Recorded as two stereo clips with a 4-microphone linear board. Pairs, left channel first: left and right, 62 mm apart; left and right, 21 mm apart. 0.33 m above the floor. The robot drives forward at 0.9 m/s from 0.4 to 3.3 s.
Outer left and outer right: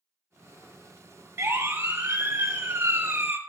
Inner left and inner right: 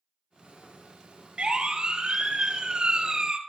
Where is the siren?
40° right (ahead or behind), 2.5 m; by 3.4 s 35° right (ahead or behind), 2 m.